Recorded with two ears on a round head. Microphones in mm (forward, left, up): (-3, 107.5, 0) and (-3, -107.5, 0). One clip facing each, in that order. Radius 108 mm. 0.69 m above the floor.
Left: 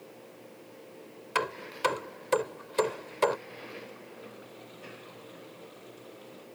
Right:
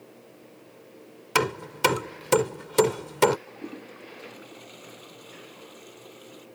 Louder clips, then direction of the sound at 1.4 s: Right 7 dB; 65° right (ahead or behind).